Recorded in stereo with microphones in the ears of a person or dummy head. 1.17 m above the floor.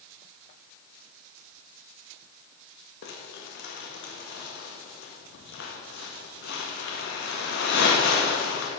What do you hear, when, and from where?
3.0 s crumpling: 60° left (ahead or behind), 1.5 m